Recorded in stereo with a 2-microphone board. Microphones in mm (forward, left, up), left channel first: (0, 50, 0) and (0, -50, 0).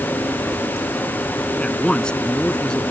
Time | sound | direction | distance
1.6 | a man speaking | 10° left (ahead or behind) | ?